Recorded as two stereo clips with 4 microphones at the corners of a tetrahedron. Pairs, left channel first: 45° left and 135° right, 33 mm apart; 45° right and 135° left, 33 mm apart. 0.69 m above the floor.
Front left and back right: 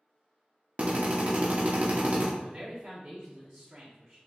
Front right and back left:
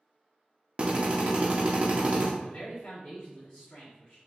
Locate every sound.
0.8 s a drill: 175° right, 0.9 m
2.4 s a man speaking: 80° right, 1.1 m